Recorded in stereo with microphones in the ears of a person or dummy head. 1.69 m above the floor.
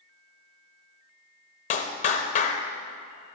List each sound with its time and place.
1.7 s a clap: 40° left (ahead or behind), 1.0 m